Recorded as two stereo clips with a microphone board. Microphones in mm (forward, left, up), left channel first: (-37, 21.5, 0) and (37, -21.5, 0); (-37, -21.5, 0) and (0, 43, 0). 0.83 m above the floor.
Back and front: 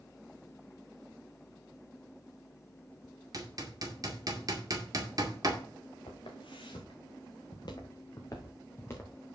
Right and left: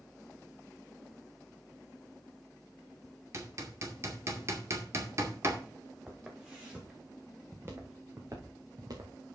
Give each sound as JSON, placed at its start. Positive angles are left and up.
{"t": 3.3, "sound": "hammering", "azimuth_deg": 10, "distance_m": 2.0}
{"t": 6.1, "sound": "footsteps", "azimuth_deg": 145, "distance_m": 3.5}